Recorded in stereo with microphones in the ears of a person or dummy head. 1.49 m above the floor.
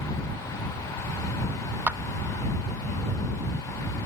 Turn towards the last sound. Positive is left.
turn(degrees=-10)  # may be behind; listen again after turning